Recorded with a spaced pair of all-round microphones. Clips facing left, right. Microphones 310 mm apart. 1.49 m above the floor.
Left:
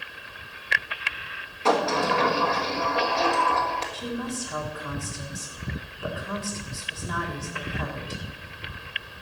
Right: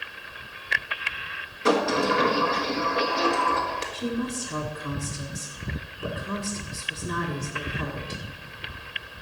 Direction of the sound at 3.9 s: 30° right (ahead or behind).